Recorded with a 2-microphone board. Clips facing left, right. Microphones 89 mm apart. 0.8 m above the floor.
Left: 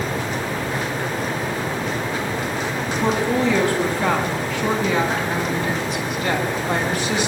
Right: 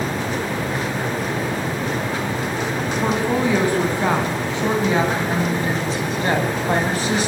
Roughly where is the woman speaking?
Centre.